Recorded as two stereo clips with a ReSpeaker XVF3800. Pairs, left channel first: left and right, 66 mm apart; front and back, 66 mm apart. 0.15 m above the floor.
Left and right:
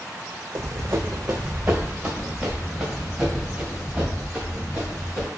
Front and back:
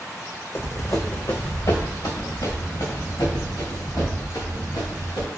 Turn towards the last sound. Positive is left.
turn(degrees=-5)